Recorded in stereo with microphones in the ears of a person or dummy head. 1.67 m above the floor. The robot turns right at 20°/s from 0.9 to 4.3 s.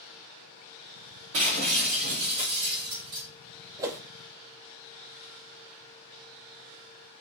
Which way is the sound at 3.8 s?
20° right (ahead or behind).